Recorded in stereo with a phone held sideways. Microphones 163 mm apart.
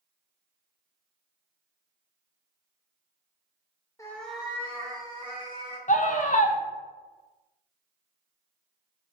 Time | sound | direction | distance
4.0 | a cat meowing | 20° left (ahead or behind) | 0.5 m
5.9 | a scream | 50° left (ahead or behind) | 0.5 m